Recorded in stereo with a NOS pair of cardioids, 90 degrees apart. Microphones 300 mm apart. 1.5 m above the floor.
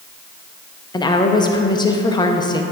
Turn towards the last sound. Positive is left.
turn(degrees=15)